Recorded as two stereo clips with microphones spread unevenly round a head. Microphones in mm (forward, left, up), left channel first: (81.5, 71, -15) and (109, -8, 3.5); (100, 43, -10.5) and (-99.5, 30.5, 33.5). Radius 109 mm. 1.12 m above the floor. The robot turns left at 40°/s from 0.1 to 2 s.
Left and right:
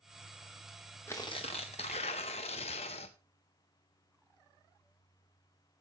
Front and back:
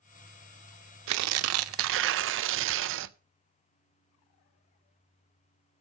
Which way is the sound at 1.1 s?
170° right.